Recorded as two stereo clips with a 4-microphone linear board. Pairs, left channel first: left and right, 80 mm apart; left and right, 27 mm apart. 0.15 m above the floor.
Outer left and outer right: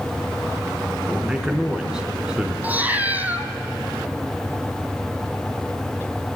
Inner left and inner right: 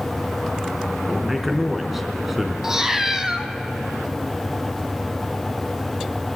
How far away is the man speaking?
About 1.9 m.